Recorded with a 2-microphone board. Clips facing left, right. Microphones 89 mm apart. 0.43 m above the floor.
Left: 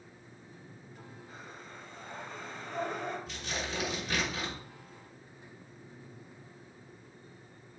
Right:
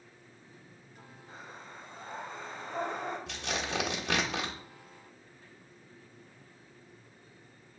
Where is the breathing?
25° right (ahead or behind), 2.5 m.